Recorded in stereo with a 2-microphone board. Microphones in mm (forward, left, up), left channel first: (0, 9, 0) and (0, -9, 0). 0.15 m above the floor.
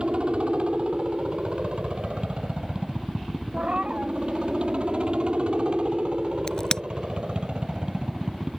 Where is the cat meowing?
85° right.